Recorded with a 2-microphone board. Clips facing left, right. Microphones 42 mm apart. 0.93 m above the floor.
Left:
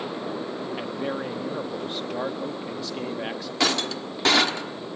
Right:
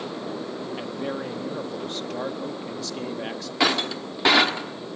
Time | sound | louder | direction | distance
0.8 | a man speaking | left 1 dB | 15° left (ahead or behind) | 1.3 m
3.6 | breaking glass | right 2 dB | 15° right (ahead or behind) | 1.3 m